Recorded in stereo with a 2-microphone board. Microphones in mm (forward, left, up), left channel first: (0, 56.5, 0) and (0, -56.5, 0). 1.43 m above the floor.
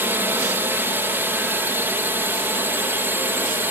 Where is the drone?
20° right (ahead or behind).